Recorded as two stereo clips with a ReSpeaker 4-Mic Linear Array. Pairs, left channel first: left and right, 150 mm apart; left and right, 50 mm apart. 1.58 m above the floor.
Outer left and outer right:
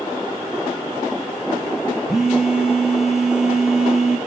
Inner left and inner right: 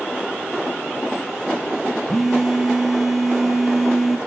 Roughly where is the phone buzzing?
Centre.